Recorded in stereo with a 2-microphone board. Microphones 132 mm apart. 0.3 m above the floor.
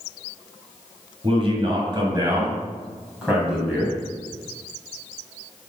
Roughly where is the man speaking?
Right.